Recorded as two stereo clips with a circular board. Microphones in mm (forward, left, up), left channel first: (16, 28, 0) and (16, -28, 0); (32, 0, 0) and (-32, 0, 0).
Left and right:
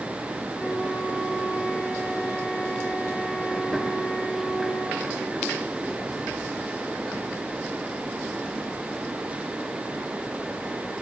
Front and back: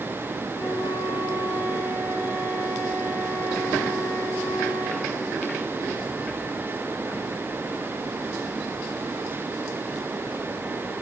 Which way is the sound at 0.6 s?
Straight ahead.